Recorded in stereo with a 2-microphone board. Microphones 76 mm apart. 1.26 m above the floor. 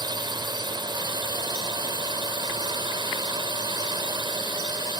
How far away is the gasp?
I don't hear a gasp.